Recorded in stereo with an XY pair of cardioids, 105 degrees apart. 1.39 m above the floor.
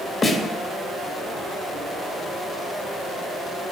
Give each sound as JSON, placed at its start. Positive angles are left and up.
{"t": 0.2, "sound": "a snare drum", "azimuth_deg": 35, "distance_m": 1.8}